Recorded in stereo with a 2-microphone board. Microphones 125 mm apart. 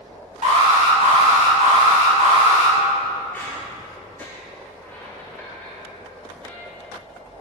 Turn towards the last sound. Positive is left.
turn(degrees=15)  # may be behind; listen again after turning